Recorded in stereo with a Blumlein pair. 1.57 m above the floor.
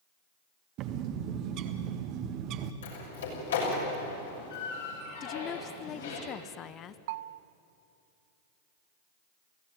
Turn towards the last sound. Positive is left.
turn(degrees=-50)